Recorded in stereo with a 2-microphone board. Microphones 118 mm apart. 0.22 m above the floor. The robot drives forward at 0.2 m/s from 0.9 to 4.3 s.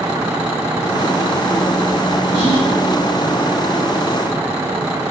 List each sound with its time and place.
2.3 s whispering: 30° right (ahead or behind), 1.3 m